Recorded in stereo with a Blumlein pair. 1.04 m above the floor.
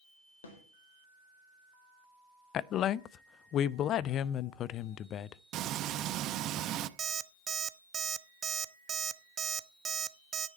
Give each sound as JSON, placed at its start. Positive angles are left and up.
{"t": 0.4, "sound": "a snare drum", "azimuth_deg": 60, "distance_m": 4.0}
{"t": 2.5, "sound": "a woman speaking", "azimuth_deg": 30, "distance_m": 0.5}
{"t": 5.5, "sound": "frying", "azimuth_deg": -35, "distance_m": 0.7}
{"t": 7.0, "sound": "an alarm clock", "azimuth_deg": -20, "distance_m": 0.7}